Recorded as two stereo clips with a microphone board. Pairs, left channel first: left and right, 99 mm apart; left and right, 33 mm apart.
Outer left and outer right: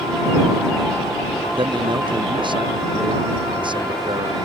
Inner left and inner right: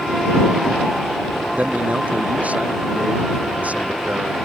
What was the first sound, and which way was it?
A man speaking, 50° right (ahead or behind).